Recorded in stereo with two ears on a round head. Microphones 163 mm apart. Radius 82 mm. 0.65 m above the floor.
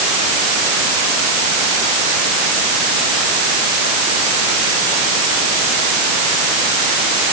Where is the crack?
I don't hear a crack.